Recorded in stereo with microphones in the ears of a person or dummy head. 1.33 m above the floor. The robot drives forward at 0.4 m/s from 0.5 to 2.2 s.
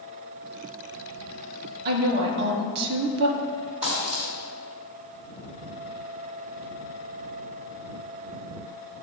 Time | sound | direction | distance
1.9 | a woman speaking | 50° right (ahead or behind) | 0.8 m
3.8 | a dropped coin | 25° right (ahead or behind) | 1.4 m